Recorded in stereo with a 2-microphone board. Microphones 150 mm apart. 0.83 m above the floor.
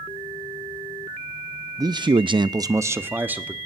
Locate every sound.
1.8 s a man speaking: 25° right (ahead or behind), 0.7 m; by 3.5 s 10° right (ahead or behind), 1.6 m